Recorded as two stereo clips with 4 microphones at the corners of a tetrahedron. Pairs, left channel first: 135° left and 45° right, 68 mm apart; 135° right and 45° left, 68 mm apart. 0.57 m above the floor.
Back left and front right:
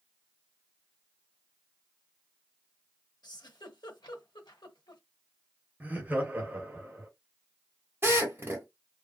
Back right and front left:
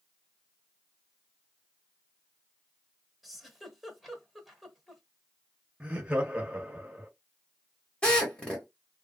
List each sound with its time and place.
3.2 s a giggle: 135° left, 0.9 m
5.8 s laughter: 10° right, 1.0 m
8.0 s a drill: 70° right, 1.4 m